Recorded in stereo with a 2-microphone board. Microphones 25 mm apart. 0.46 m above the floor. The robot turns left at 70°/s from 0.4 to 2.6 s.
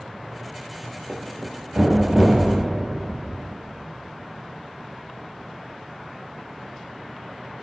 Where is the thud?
75° right (ahead or behind), 3.5 m; by 3.2 s centre (ahead or behind), 3.5 m.